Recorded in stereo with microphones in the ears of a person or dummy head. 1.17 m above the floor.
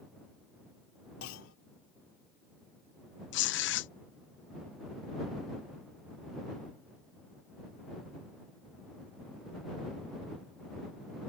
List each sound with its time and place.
1.2 s a clunk: 80° left
3.3 s tearing paper: 50° left (ahead or behind)